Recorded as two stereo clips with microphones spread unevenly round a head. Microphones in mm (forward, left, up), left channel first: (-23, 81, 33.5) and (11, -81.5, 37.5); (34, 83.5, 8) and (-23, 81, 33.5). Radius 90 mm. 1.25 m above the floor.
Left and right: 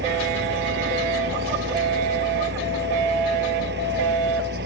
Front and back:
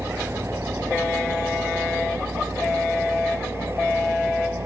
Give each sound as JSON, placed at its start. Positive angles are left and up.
{"t": 0.0, "sound": "a fan", "azimuth_deg": -100}